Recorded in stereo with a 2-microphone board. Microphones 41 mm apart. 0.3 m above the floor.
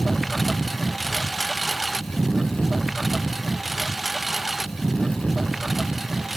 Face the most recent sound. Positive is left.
turn(degrees=-5)  # may be behind; listen again after turning